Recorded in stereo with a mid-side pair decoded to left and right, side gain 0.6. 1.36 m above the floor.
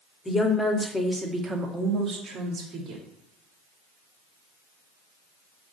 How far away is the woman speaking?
About 1.0 m.